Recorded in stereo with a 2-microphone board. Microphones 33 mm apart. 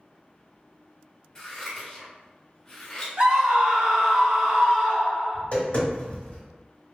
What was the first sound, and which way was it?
Scissors, 25° left (ahead or behind).